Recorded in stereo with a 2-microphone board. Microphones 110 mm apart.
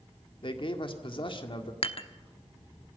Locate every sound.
0.4 s a man speaking: 50° left (ahead or behind), 1.9 m
1.8 s dishes clattering: 55° left (ahead or behind), 0.9 m